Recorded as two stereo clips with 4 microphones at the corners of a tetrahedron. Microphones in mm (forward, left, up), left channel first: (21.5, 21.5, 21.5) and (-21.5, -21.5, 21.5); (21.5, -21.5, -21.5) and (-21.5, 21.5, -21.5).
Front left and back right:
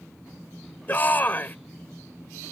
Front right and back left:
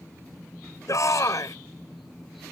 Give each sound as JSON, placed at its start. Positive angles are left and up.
{"t": 0.9, "sound": "a shout", "azimuth_deg": -15}